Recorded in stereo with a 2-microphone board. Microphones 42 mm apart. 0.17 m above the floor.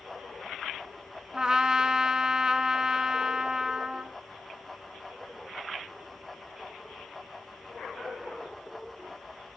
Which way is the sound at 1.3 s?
15° right (ahead or behind).